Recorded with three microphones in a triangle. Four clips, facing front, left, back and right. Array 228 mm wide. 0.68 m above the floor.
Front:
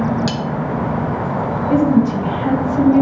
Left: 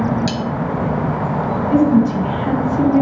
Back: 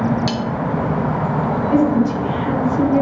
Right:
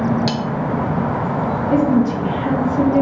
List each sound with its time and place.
0.3 s cutlery clinking: 75° right, 1.0 m
1.7 s a woman speaking: straight ahead, 3.5 m